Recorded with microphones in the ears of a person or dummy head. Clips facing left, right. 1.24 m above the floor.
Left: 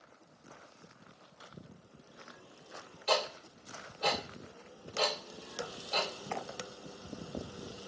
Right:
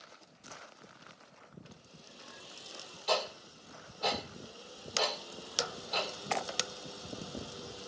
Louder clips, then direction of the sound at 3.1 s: Left 1 dB; 30° left (ahead or behind).